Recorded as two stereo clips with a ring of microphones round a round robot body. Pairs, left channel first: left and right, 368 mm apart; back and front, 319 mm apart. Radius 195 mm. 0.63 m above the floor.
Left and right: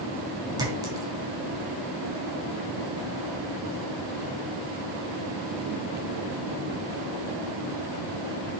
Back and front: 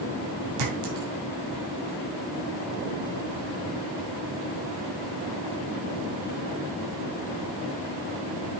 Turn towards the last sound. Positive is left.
turn(degrees=-10)